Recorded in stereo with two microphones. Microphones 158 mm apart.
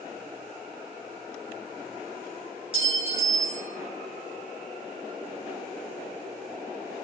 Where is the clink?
35° right (ahead or behind), 5.5 m.